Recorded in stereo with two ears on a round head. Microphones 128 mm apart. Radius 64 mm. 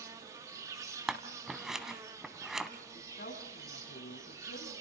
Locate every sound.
0.0 s an insect: 25° right (ahead or behind), 1.8 m
1.1 s scissors: 5° right (ahead or behind), 1.5 m
2.9 s a woman speaking: 70° left (ahead or behind), 6.5 m